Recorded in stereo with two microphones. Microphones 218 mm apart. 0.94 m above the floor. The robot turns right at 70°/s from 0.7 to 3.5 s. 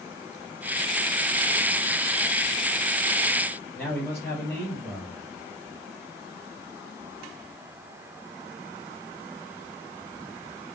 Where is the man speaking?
5° left (ahead or behind), 4.5 m.